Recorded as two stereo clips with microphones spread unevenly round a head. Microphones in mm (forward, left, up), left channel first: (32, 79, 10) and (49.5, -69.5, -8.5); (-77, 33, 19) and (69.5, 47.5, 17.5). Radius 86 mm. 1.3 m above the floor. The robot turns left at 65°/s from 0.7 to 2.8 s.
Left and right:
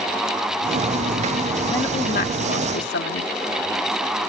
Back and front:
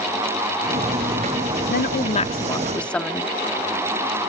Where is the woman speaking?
175° left; by 3.3 s 105° left.